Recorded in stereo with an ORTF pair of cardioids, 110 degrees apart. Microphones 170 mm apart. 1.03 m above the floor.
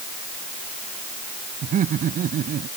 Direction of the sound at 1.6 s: 50° right.